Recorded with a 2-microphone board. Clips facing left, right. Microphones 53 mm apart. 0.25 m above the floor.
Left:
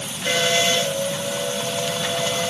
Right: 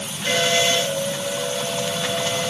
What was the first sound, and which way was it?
Only background noise.